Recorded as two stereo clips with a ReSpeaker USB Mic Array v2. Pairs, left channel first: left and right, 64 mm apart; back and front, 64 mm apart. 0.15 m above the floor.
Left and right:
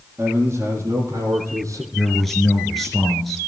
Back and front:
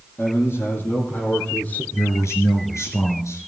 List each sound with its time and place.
0.2 s a man speaking: 145° right, 4.5 m; by 1.8 s 115° right, 3.5 m
1.9 s a man speaking: straight behind, 3 m